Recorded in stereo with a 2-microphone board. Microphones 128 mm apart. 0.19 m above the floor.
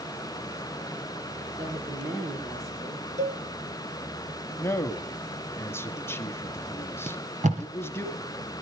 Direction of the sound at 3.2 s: 65° right (ahead or behind).